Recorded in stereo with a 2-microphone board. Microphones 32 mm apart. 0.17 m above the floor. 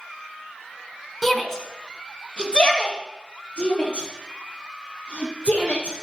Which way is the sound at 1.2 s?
5° left (ahead or behind).